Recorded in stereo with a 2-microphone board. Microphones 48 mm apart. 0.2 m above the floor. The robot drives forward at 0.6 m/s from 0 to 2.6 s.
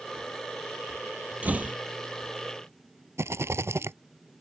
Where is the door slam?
35° right (ahead or behind).